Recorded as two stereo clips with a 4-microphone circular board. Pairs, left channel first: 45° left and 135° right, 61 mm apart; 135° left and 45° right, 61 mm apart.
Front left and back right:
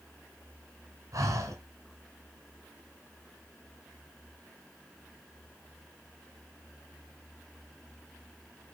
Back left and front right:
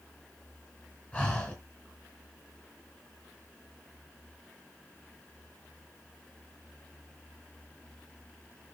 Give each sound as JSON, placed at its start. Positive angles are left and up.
{"t": 1.1, "sound": "breathing", "azimuth_deg": -160, "distance_m": 2.5}